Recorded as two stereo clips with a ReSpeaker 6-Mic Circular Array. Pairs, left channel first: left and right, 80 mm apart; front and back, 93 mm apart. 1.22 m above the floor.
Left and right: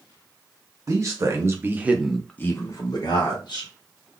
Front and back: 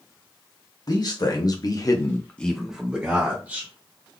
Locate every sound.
0.9 s a man speaking: 45° right, 1.3 m; by 3.7 s 120° left, 1.3 m